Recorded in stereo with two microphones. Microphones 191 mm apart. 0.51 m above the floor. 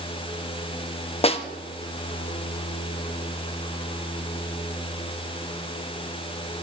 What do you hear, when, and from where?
1.2 s a snare drum: 30° left (ahead or behind), 0.6 m